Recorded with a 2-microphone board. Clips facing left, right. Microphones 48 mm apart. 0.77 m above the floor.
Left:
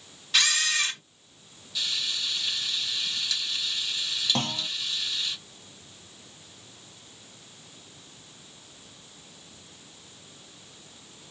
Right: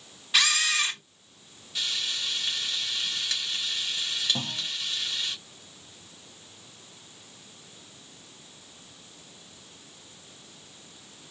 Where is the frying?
35° right (ahead or behind), 1.9 m.